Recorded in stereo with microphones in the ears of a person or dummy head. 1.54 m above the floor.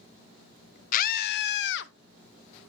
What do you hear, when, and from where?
0.9 s a scream: 45° left (ahead or behind), 0.6 m; by 1.9 s 70° left (ahead or behind), 1.2 m